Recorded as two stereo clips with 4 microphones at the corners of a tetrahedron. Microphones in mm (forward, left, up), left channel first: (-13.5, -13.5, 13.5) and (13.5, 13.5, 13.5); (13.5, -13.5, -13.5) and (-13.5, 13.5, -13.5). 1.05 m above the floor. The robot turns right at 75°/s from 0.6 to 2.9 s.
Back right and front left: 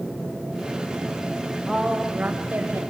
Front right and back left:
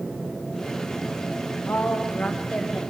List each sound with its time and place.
1.7 s a woman speaking: 55° right, 4.5 m; by 2.8 s 35° left, 4.5 m